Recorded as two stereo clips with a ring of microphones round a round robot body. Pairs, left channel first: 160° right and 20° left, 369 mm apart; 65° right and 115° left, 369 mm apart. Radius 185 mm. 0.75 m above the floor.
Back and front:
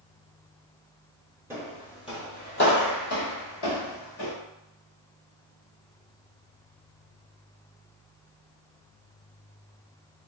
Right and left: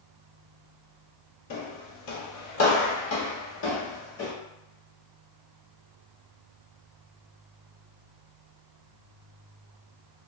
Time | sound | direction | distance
1.5 | footsteps | 55° right | 0.9 m